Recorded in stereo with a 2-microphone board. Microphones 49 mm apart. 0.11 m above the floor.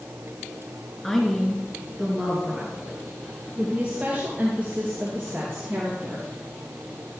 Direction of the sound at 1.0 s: 10° left (ahead or behind).